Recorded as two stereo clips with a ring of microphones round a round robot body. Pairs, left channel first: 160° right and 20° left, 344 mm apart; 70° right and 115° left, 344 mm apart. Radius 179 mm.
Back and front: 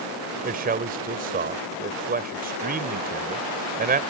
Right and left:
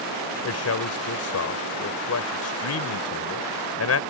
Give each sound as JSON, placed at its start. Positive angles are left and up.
{"t": 0.4, "sound": "a man speaking", "azimuth_deg": -35}